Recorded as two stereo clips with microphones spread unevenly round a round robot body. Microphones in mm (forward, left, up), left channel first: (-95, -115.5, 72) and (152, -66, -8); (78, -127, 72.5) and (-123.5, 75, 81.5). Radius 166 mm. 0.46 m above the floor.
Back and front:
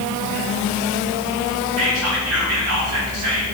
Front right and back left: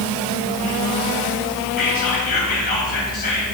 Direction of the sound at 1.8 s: 15° left.